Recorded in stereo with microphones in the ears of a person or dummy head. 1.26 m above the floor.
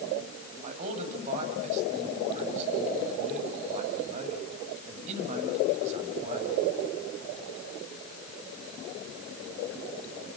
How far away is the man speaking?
About 6.5 m.